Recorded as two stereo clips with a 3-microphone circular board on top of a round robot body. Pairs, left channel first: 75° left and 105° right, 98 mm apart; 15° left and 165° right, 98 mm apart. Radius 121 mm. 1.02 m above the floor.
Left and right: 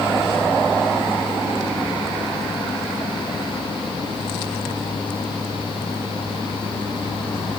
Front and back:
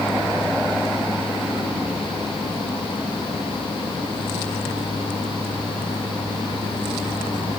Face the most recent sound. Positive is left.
No sound to turn to.